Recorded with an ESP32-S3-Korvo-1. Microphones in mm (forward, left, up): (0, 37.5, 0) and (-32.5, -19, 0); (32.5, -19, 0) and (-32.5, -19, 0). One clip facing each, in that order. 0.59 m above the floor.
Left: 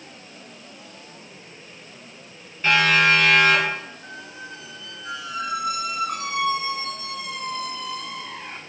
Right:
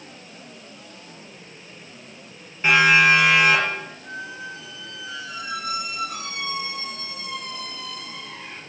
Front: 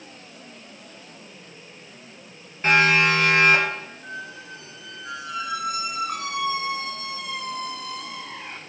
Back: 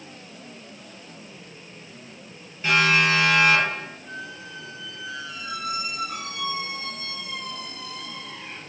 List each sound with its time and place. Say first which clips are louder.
2.6 s a siren: right 2 dB, front 2 dB; 45° right, 9.5 m
4.0 s a squeak: right 4 dB, front 1 dB; 25° left, 3.5 m